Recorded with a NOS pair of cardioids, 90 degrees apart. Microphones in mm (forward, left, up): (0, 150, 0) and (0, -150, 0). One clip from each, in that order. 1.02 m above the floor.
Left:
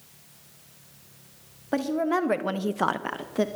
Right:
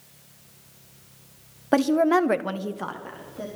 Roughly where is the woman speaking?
Ahead right.